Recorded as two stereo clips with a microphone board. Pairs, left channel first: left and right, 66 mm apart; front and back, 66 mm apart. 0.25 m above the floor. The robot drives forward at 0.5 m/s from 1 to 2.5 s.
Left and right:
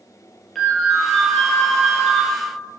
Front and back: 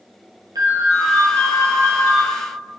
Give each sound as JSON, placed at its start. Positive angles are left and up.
{"t": 0.6, "sound": "a ringtone", "azimuth_deg": 180, "distance_m": 2.5}